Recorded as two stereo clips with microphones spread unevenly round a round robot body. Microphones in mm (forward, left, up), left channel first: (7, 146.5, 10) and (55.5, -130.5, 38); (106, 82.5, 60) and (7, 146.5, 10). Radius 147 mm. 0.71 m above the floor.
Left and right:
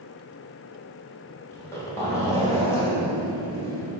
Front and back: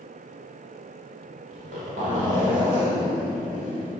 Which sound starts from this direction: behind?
A zipper, at 1.5 s.